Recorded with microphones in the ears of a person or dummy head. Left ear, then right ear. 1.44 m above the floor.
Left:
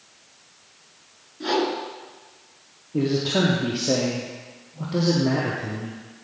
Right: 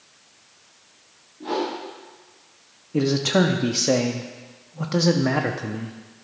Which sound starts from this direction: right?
A man speaking, at 2.9 s.